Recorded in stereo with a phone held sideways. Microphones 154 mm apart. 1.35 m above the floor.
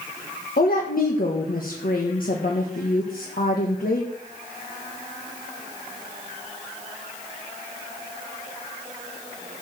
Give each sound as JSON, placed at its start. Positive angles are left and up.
{"t": 0.6, "sound": "a woman speaking", "side_deg": 70, "distance_m": 1.5}